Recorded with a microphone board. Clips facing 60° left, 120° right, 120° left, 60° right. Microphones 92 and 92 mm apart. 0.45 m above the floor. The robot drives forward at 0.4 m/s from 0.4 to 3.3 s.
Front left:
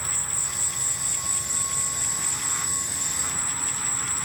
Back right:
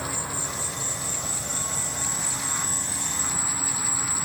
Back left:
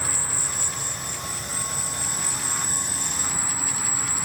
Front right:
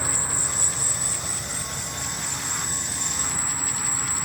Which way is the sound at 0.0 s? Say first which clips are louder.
Back right 6 dB, front right 2 dB; 135° right.